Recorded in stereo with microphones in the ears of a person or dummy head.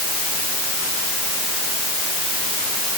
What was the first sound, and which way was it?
Only background noise.